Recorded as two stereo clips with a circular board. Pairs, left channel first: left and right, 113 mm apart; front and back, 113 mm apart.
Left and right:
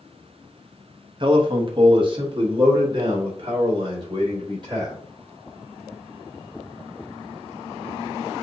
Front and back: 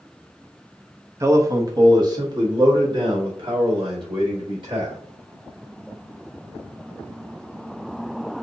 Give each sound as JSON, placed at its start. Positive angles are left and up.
{"t": 1.2, "sound": "a man speaking", "azimuth_deg": -120, "distance_m": 0.8}